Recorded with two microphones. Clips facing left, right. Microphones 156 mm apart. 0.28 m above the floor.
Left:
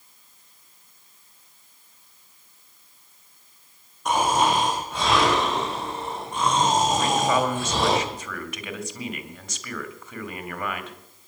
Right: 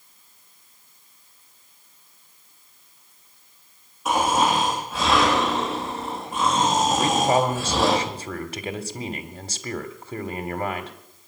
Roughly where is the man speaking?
Right.